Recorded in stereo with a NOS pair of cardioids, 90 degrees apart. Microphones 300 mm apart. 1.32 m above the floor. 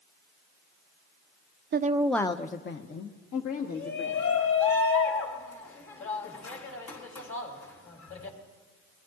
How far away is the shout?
About 3 m.